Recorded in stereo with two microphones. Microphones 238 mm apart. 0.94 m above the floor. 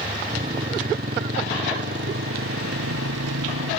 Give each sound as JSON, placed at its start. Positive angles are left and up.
{"t": 0.0, "sound": "a motorcycle", "side_deg": -30}